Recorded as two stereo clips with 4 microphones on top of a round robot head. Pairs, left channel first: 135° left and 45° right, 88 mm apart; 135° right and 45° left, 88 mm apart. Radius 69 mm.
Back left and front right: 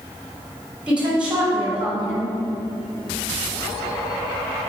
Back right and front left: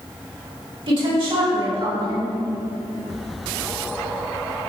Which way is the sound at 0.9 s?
30° left.